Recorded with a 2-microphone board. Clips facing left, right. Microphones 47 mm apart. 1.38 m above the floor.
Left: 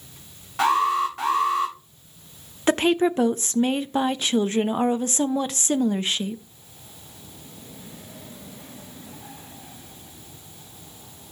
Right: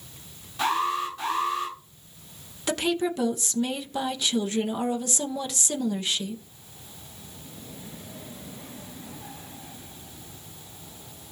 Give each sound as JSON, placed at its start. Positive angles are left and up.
{"t": 0.6, "sound": "an alarm", "side_deg": 60, "distance_m": 8.0}
{"t": 2.7, "sound": "a woman speaking", "side_deg": 35, "distance_m": 0.5}